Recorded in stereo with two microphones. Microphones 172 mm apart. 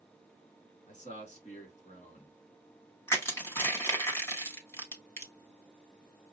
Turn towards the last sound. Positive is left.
turn(degrees=15)  # may be behind; listen again after turning